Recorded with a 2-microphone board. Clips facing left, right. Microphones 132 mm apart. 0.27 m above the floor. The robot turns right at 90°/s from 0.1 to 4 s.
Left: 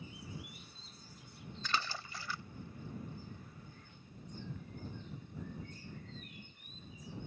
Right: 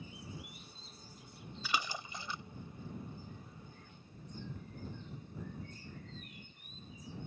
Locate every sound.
1.6 s a splash: 10° right (ahead or behind); by 2.4 s 20° right (ahead or behind)